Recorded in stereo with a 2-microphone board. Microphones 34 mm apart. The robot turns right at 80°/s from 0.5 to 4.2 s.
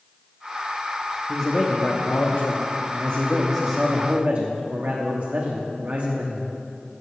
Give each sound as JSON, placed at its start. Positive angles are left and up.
{"t": 1.3, "sound": "a man speaking", "azimuth_deg": 5, "distance_m": 0.9}